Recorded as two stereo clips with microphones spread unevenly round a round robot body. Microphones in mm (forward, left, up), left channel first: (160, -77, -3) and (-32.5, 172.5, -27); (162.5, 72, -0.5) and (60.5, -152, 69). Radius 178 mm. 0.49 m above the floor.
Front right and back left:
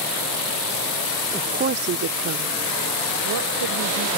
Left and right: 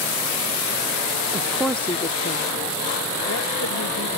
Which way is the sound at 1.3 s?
165° left.